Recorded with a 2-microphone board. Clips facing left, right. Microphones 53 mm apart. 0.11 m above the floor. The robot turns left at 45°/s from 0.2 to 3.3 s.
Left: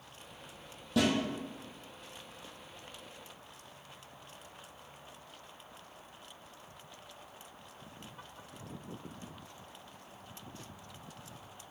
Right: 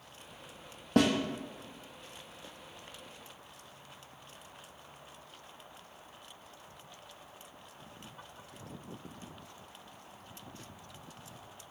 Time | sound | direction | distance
1.0 | a snare drum | 50° right (ahead or behind) | 0.9 m